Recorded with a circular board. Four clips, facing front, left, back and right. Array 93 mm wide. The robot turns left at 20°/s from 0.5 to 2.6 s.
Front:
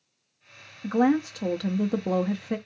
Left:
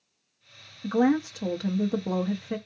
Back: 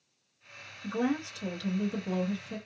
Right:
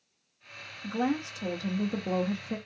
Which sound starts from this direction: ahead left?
A woman speaking, at 0.8 s.